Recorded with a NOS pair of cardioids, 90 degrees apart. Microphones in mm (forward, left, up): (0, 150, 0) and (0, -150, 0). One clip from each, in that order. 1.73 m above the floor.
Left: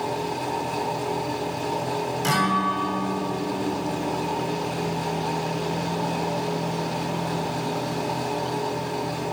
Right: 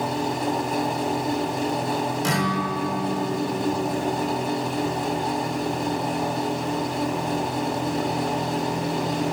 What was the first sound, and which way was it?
A fan, 25° right.